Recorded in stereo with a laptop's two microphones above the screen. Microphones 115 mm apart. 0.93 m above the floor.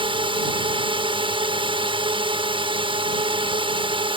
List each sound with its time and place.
0.0 s a drone: 50° right (ahead or behind)